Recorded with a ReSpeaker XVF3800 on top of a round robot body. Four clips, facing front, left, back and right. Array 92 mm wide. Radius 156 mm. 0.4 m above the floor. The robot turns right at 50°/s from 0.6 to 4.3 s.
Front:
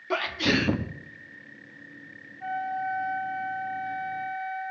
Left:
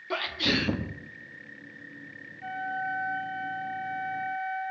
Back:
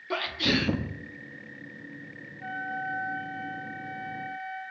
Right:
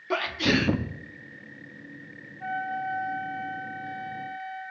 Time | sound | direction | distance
0.1 | a sneeze | 45° right | 0.8 m
2.4 | a flute | 70° right | 3 m